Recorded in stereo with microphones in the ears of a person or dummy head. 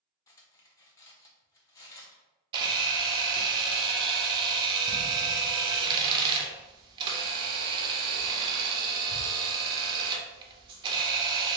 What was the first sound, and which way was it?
Cutlery clinking, 20° left (ahead or behind).